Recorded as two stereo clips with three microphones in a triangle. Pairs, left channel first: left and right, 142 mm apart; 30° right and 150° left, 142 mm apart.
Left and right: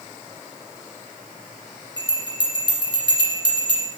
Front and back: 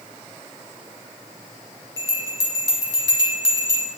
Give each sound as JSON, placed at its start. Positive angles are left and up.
{"t": 2.0, "sound": "a bell", "azimuth_deg": -145, "distance_m": 1.6}